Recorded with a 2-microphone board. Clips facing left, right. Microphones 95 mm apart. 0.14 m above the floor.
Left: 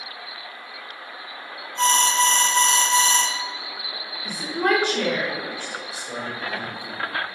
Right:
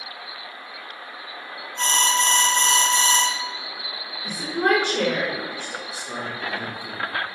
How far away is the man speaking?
About 1.7 m.